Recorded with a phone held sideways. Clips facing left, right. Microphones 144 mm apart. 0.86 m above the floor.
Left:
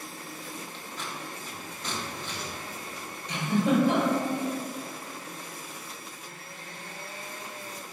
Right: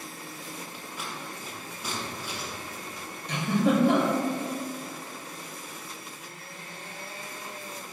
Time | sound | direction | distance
0.7 | scissors | 10° right (ahead or behind) | 1.2 m
3.3 | a giggle | 55° right (ahead or behind) | 2.5 m